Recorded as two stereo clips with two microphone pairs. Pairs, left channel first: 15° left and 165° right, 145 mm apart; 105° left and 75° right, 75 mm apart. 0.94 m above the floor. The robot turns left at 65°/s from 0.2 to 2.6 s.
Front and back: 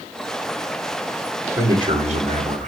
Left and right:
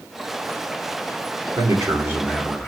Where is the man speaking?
95° right, 2.5 m; by 2.7 s 165° right, 2.5 m.